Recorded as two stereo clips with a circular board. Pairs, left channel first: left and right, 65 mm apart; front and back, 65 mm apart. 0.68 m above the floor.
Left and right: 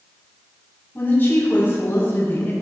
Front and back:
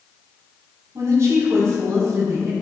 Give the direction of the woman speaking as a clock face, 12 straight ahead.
7 o'clock.